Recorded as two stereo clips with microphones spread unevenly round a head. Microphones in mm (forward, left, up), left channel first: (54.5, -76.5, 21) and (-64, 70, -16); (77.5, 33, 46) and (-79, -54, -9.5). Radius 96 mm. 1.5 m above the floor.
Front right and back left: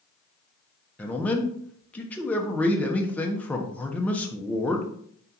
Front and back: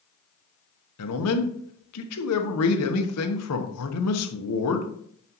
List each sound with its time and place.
1.0 s a man speaking: 35° left, 1.1 m